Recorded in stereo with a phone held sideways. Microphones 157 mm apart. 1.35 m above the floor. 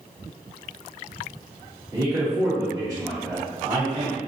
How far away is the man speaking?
About 1.1 m.